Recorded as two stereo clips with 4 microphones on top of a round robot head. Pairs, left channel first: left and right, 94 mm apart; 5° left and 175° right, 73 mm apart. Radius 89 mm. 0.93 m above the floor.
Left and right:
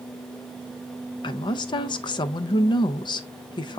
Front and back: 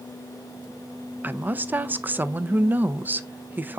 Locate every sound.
1.2 s a woman speaking: 125° left, 0.6 m